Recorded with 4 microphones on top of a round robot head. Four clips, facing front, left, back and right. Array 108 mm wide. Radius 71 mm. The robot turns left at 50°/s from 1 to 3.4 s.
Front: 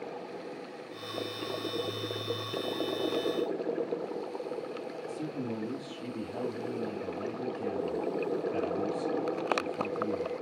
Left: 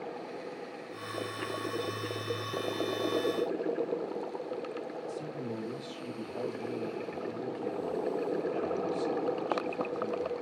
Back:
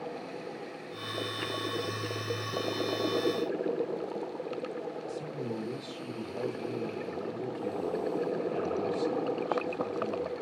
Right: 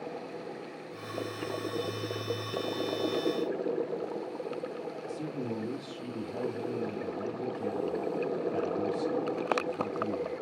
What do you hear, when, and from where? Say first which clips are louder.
5.1 s a man speaking: right 2 dB, front 1 dB; 40° right, 3.5 m